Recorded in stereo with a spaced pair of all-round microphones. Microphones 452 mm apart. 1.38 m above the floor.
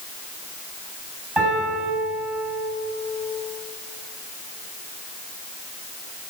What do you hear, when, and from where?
1.4 s a piano: 70° right (ahead or behind), 9 m